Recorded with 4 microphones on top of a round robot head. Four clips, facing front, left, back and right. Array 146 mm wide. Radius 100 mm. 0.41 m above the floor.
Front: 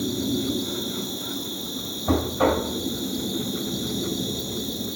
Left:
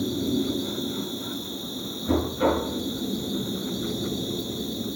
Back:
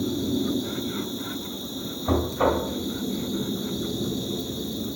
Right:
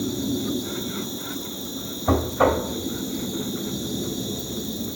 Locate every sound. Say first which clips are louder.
0.0 s an insect: even, even; 60° right, 0.8 m
2.1 s knocking: right 3 dB, front 1 dB; 90° right, 1.8 m